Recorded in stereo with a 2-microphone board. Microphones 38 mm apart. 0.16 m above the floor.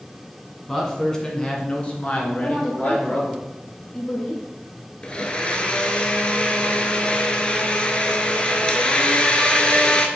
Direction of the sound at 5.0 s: 30° left (ahead or behind).